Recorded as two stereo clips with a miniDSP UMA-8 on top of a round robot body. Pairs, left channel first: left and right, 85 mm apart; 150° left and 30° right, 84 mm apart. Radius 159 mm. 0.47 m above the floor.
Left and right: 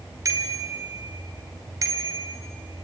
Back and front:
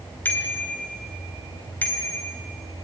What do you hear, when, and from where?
0.2 s a bicycle bell: 140° right, 2.5 m